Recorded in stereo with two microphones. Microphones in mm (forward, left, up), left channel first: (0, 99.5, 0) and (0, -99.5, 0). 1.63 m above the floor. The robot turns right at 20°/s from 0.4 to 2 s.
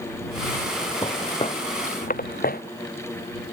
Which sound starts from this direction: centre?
Footsteps, at 1.0 s.